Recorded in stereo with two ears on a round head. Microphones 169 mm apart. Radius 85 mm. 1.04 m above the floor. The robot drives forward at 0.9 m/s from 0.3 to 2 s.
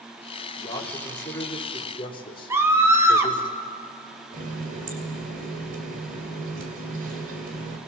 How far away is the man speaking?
About 4 m.